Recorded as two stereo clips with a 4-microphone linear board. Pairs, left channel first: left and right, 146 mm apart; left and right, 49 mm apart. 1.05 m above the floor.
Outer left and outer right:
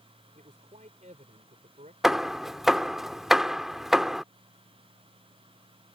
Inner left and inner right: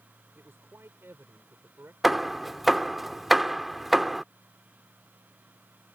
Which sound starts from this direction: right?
A man speaking, at 0.3 s.